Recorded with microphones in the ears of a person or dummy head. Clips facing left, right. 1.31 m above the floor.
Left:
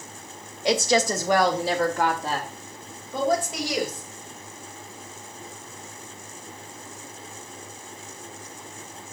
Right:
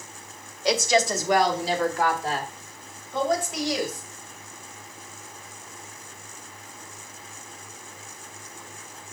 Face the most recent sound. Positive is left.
turn(degrees=85)